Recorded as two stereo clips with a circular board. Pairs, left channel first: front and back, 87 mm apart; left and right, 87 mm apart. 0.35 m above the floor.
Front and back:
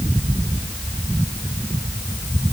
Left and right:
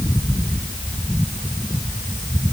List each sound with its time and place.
Only background noise.